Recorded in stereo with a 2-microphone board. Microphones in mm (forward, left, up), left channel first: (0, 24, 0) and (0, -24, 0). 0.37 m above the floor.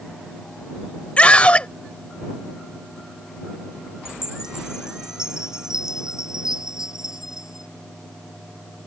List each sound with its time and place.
1.2 s a scream: 25° left (ahead or behind)
4.0 s a chime: 15° right (ahead or behind)